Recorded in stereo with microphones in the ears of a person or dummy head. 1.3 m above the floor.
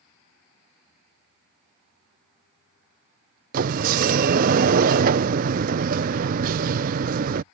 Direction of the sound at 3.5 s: 40° right (ahead or behind).